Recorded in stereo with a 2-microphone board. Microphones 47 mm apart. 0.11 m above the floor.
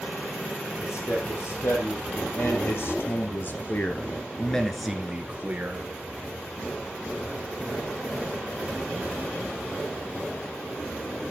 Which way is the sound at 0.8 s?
75° left (ahead or behind).